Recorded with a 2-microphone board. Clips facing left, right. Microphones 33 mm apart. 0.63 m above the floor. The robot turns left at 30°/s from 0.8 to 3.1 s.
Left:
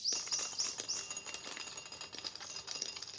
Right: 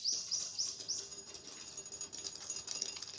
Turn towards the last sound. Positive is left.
turn(degrees=10)  # may be behind; listen again after turning